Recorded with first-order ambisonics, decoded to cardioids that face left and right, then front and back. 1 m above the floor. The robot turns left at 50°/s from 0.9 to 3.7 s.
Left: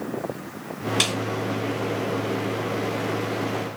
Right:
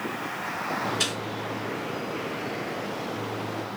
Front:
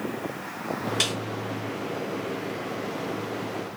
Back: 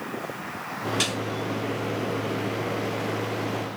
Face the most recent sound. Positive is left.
turn(degrees=-60)